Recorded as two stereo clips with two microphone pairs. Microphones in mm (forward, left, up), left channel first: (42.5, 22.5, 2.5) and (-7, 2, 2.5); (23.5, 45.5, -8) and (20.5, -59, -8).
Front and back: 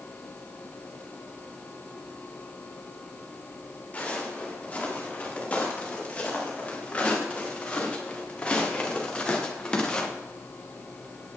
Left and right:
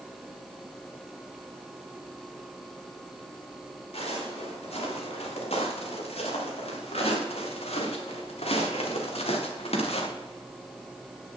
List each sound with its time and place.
3.9 s footsteps: 85° left, 7 m; by 10.1 s 95° left, 3.5 m